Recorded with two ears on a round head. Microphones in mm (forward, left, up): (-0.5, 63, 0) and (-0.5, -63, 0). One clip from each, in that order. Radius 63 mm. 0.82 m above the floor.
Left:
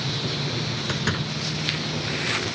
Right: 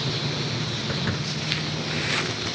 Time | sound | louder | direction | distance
0.9 | a door slam | left 1 dB | 75° left (ahead or behind) | ?